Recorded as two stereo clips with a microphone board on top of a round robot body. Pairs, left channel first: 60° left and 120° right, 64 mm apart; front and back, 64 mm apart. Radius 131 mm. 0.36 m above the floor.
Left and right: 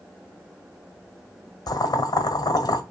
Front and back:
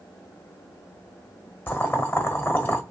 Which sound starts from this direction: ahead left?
Boiling, at 1.7 s.